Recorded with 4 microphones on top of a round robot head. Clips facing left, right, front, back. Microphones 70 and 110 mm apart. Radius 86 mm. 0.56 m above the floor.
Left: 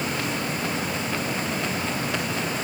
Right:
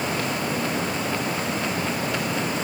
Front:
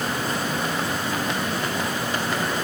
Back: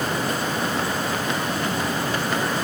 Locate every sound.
Only background noise.